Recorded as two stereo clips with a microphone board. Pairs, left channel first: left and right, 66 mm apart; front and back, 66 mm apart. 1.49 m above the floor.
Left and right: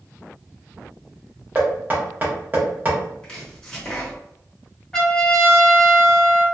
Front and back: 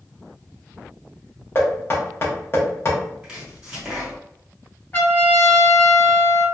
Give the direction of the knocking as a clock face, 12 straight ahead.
1 o'clock.